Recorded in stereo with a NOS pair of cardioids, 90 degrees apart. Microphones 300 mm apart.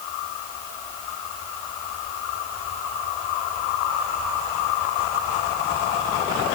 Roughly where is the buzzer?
I don't hear a buzzer.